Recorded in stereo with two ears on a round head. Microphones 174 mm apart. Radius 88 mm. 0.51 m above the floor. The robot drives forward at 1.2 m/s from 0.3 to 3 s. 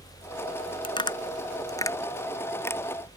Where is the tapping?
30° left (ahead or behind); by 2.8 s 15° left (ahead or behind).